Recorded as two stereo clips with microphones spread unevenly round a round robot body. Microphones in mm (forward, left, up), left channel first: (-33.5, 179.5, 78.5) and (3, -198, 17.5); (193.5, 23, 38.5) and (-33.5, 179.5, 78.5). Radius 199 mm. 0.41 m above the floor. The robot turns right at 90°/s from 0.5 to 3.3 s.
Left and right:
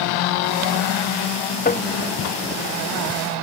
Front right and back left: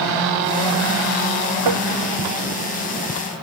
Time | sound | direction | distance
1.6 | tapping | 160° left | ?